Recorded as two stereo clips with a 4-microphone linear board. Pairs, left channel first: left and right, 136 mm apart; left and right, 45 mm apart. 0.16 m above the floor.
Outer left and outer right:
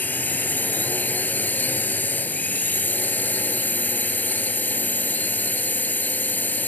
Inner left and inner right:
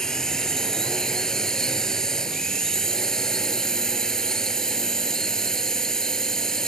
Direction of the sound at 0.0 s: 15° left (ahead or behind).